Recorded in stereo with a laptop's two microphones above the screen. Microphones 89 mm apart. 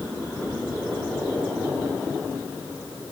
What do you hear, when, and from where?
Only background noise.